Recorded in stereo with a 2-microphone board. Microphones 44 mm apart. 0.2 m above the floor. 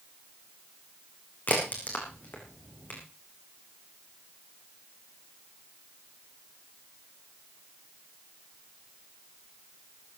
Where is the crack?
45° left (ahead or behind), 5 m.